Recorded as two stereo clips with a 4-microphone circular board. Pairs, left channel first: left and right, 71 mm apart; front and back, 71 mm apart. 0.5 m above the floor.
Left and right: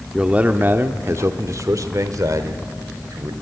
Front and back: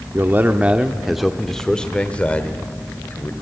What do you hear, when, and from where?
0.1 s a man speaking: 160° right, 0.9 m; by 3.3 s 60° right, 1.9 m